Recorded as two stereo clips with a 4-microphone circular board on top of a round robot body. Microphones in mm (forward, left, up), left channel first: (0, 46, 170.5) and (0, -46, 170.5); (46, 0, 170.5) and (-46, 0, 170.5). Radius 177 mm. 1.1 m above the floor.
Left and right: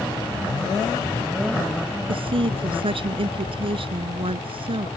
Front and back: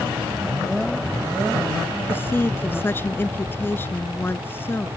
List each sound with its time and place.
2.1 s a woman speaking: 70° right